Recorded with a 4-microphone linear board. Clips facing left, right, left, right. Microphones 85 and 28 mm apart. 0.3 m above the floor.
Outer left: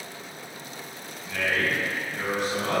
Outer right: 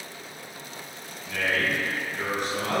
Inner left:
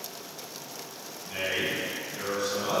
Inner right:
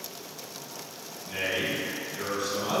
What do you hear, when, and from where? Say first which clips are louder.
1.2 s a man speaking: even, even; 15° left (ahead or behind), 1.4 m